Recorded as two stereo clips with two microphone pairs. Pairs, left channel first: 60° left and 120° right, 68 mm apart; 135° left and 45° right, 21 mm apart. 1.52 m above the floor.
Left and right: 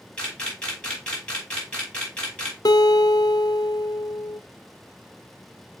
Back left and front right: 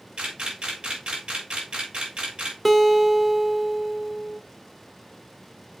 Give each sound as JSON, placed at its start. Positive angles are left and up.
{"t": 0.2, "sound": "a camera shutter", "azimuth_deg": -15, "distance_m": 3.5}
{"t": 2.6, "sound": "a guitar", "azimuth_deg": 45, "distance_m": 0.7}